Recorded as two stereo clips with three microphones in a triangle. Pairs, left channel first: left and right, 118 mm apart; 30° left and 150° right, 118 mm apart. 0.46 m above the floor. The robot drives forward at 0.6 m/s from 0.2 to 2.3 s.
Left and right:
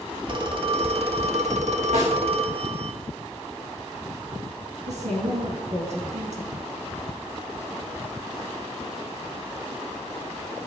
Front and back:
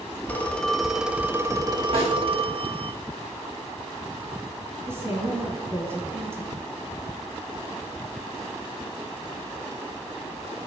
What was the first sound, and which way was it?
A phone ringing, 45° right.